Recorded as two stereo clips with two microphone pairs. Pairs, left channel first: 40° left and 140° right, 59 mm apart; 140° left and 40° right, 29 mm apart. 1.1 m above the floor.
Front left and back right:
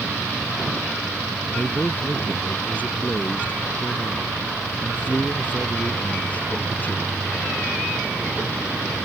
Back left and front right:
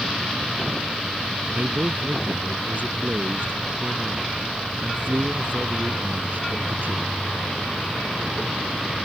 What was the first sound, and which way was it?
A man speaking, 25° right.